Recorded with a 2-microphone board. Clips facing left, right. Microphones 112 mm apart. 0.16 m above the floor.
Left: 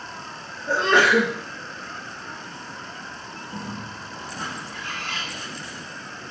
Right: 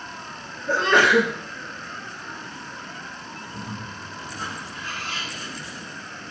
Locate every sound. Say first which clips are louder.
0.7 s a sneeze: even; 15° left (ahead or behind), 2 m
3.5 s a bird: left 2 dB; 65° left (ahead or behind), 4.5 m